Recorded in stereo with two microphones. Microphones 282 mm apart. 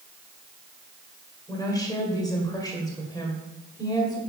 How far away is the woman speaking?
About 1.7 m.